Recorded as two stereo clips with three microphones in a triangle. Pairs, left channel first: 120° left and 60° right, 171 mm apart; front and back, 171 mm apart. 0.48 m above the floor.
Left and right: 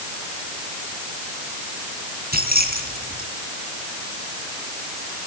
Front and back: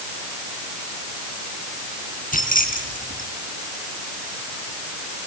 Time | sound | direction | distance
2.3 | keys jangling | 35° right | 4 m